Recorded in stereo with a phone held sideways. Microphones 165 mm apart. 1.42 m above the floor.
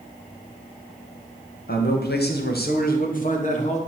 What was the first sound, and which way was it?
A man speaking, 65° left (ahead or behind).